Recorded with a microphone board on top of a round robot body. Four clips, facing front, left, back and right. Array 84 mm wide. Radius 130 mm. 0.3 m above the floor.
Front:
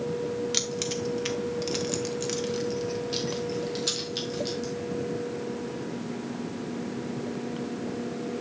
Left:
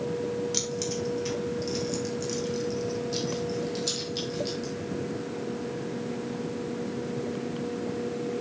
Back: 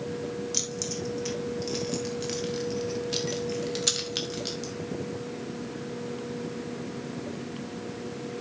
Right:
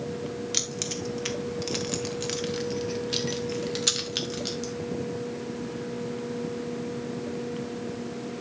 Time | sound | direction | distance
0.5 | keys jangling | 30° right | 1.8 m